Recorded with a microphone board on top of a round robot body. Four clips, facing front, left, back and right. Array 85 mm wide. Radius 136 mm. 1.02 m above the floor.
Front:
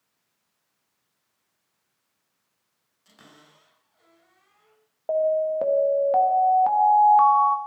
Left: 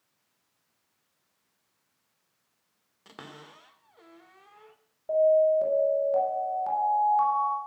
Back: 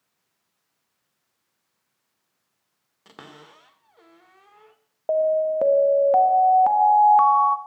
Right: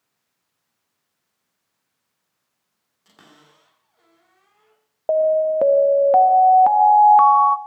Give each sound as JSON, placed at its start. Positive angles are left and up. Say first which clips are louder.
{"t": 3.0, "sound": "a cupboard door", "louder": "left 6 dB, back 9 dB", "azimuth_deg": 150, "distance_m": 1.7}
{"t": 5.1, "sound": "an alarm", "louder": "right 4 dB, back 2 dB", "azimuth_deg": -105, "distance_m": 1.2}